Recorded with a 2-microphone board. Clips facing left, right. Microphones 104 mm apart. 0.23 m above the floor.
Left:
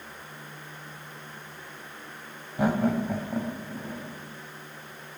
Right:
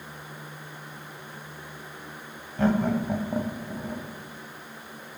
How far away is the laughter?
About 1.0 m.